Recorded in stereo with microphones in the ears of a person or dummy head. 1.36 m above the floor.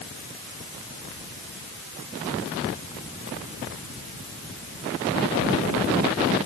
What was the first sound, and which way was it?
Only background noise.